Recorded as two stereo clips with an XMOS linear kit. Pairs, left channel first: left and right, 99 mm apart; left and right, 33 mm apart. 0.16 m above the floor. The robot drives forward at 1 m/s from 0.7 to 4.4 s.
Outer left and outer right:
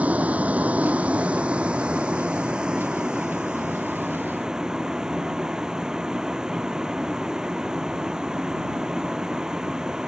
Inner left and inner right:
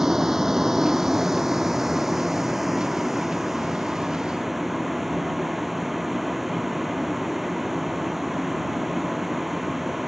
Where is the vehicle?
15° right (ahead or behind); by 10.1 s 5° right (ahead or behind).